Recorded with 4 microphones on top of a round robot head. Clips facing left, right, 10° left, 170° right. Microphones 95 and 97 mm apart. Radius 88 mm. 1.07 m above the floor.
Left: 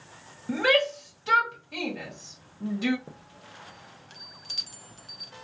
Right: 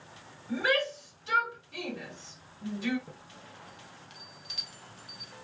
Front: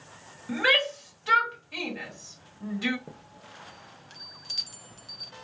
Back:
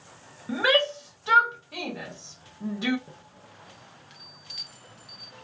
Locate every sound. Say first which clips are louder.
0.5 s a shout: left 5 dB, back 3 dB; 120° left, 1.0 m
3.1 s a chime: left 2 dB, front 2 dB; 50° left, 0.5 m